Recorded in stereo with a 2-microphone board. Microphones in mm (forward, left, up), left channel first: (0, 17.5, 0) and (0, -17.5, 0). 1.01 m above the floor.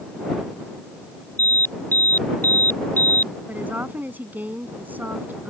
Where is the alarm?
65° left (ahead or behind).